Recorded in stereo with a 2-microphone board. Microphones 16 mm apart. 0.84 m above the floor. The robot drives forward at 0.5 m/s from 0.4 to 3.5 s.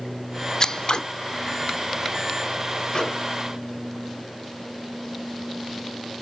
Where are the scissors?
35° left (ahead or behind), 0.7 m; by 1.0 s 45° left (ahead or behind), 0.6 m.